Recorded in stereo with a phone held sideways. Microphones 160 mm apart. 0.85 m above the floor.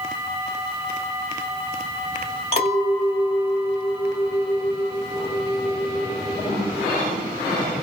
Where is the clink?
40° left (ahead or behind), 2 m.